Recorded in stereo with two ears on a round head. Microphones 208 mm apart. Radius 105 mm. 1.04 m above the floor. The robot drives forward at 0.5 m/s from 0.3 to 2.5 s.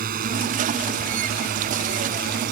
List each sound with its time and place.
0.0 s a drone: 40° right (ahead or behind)